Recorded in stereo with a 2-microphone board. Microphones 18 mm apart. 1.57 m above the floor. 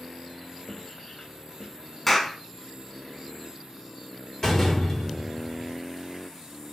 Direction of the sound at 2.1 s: 15° left (ahead or behind).